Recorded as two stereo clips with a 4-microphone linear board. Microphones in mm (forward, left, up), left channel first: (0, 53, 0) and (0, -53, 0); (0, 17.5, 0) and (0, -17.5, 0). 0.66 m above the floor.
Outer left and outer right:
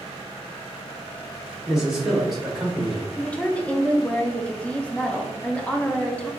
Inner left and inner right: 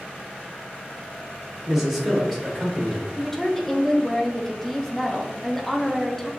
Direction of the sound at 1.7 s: 5° right (ahead or behind).